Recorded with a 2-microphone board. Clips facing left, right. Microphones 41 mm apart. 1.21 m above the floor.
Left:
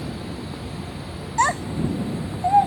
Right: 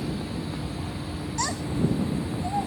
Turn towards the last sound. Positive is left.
turn(degrees=50)  # may be behind; listen again after turning